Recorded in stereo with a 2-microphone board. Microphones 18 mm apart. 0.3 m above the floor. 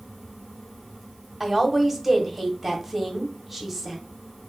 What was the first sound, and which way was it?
A woman speaking, 15° right (ahead or behind).